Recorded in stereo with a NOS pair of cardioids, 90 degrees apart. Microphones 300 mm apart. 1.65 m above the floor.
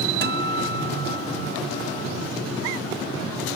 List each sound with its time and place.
0.2 s a guitar: 40° right